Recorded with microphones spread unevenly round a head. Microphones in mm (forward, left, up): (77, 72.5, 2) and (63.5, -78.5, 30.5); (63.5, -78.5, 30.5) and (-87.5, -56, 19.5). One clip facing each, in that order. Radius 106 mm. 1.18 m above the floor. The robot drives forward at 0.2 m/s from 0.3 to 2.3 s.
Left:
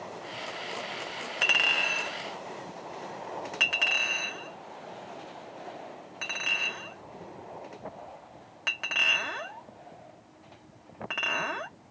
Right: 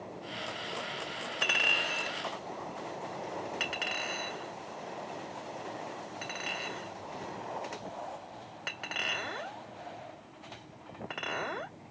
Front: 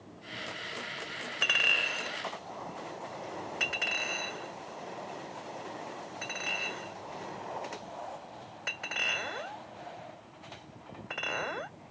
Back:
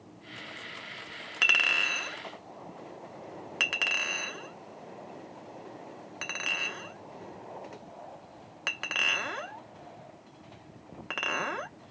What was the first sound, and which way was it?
A clink, 140° left.